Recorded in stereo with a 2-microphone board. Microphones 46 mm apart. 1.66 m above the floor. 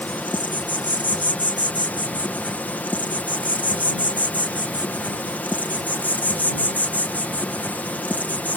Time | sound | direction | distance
0.0 | an insect | 35° left (ahead or behind) | ?